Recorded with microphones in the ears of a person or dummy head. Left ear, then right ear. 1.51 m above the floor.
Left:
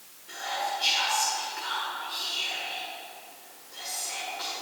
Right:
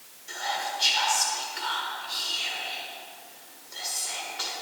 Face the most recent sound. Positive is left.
turn(degrees=-25)  # may be behind; listen again after turning